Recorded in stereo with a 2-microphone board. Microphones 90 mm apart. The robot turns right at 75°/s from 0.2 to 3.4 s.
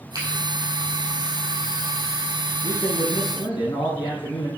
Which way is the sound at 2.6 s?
55° left.